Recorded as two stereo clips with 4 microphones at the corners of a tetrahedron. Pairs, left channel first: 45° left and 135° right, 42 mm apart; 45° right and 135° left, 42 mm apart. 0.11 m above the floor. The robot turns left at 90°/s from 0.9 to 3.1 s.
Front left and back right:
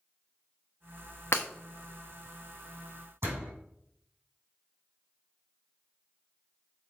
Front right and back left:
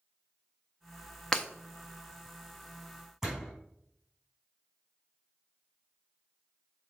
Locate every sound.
1.3 s breaking glass: 35° left, 1.5 m; by 1.5 s 20° left, 1.5 m
3.2 s a door slam: 145° right, 4 m